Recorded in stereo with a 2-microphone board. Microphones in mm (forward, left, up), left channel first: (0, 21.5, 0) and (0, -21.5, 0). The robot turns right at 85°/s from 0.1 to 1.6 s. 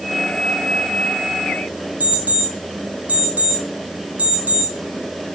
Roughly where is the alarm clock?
Right.